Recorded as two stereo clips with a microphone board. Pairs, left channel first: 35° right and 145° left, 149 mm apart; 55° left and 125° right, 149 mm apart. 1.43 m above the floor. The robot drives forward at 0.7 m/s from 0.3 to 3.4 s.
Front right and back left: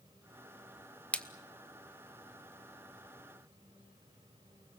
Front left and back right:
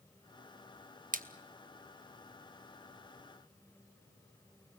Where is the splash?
115° right, 1.0 m; by 1.3 s 120° right, 1.0 m.